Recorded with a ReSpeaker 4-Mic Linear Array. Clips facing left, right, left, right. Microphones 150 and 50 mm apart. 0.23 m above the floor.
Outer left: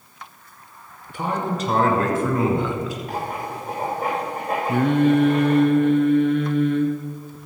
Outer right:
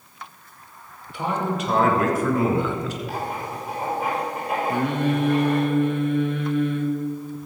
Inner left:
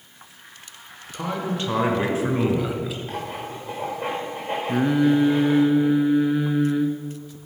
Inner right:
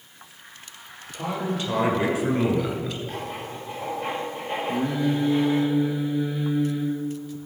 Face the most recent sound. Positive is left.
turn(degrees=60)  # may be behind; listen again after turning